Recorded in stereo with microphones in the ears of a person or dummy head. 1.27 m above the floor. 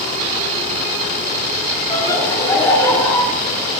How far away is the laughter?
About 8.5 m.